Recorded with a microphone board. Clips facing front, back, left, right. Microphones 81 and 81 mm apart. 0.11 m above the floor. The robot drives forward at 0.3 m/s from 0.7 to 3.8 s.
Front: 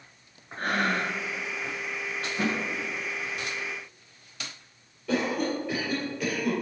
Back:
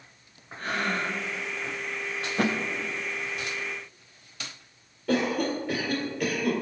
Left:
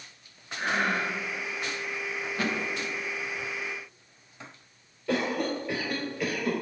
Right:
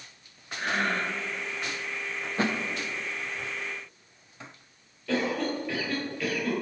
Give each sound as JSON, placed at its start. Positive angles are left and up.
{"t": 0.6, "sound": "breathing", "azimuth_deg": 10, "distance_m": 0.8}
{"t": 2.4, "sound": "a thud", "azimuth_deg": -150, "distance_m": 1.1}
{"t": 5.1, "sound": "a cough", "azimuth_deg": 160, "distance_m": 2.0}